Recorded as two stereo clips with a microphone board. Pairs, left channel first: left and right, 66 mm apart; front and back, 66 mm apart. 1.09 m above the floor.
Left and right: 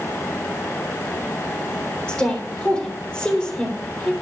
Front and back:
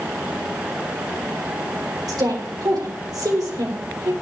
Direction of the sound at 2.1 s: 165° left.